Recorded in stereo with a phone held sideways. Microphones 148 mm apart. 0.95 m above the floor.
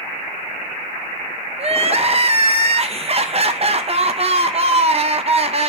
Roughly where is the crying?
Right.